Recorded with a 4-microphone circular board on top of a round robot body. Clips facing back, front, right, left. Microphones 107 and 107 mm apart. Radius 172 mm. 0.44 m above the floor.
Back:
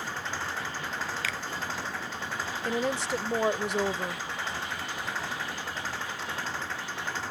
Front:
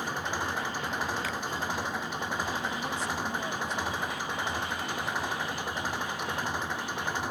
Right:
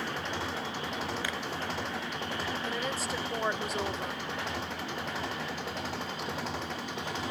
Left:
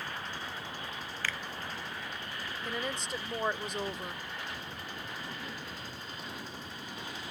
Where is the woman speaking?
175° right.